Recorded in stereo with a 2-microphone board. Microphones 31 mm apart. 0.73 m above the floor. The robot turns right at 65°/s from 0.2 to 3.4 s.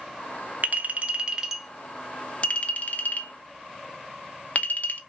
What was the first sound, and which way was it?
A clink, 60° right (ahead or behind).